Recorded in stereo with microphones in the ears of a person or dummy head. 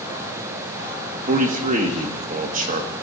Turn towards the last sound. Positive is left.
turn(degrees=-35)  # may be behind; listen again after turning